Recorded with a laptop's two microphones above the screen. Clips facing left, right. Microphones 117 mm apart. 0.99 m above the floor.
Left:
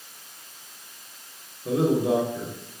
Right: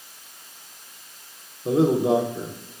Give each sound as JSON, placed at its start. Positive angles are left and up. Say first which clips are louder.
{"t": 1.6, "sound": "a man speaking", "louder": "right 3 dB", "side_deg": -25, "distance_m": 0.8}